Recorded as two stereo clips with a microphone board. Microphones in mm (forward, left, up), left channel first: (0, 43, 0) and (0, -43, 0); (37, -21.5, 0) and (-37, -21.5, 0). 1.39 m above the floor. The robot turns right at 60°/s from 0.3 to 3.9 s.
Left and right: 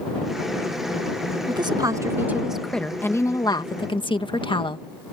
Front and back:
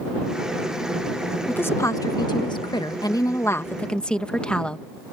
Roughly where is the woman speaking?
Right.